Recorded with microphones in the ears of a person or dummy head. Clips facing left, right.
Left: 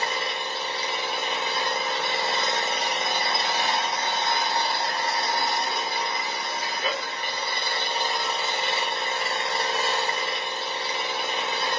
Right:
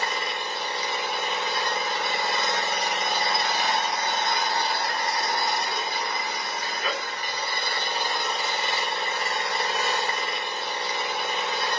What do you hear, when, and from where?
0.0 s an engine running: 30° left (ahead or behind), 1.0 m